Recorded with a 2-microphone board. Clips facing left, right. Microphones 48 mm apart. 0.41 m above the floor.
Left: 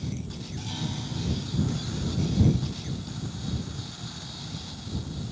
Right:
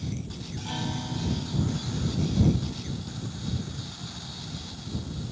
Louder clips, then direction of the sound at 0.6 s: Right 3 dB; 30° right (ahead or behind).